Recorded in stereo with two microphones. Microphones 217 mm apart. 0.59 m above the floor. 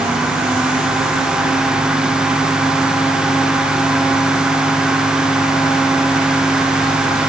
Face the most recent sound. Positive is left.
No sound to turn to.